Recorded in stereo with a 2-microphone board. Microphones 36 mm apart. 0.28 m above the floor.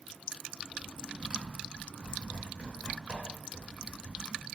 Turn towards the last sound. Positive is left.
turn(degrees=-40)  # may be behind; listen again after turning